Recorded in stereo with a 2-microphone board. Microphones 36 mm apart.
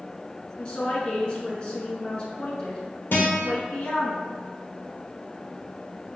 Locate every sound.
0.6 s a woman speaking: 25° left (ahead or behind), 1.9 m
3.1 s a guitar: 65° left (ahead or behind), 1.7 m